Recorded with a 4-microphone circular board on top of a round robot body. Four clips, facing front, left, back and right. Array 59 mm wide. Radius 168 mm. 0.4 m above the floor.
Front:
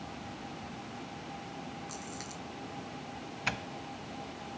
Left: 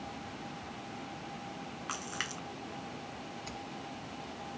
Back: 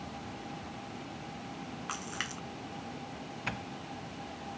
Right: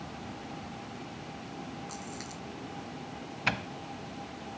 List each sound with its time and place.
1.9 s a splash: 140° left
3.5 s a doorbell: 75° right